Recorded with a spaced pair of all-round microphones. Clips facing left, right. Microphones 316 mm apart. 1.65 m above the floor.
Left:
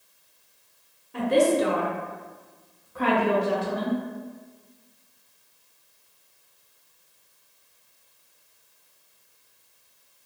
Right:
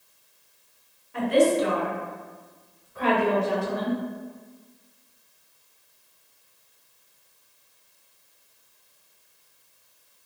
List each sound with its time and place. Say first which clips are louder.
1.1 s a woman speaking: even; 45° left (ahead or behind), 0.9 m; by 4.0 s 35° left (ahead or behind), 1.1 m